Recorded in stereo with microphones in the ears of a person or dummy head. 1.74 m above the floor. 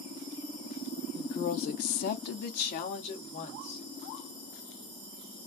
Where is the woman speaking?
30° left (ahead or behind), 0.6 m; by 3.9 s 35° left (ahead or behind), 1.2 m.